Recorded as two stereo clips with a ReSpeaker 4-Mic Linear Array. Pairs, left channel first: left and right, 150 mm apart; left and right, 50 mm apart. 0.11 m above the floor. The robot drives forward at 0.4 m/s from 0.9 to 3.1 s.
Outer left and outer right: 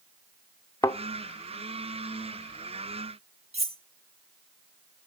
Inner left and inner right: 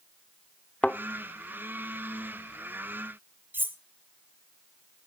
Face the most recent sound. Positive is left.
turn(degrees=-45)  # may be behind; listen again after turning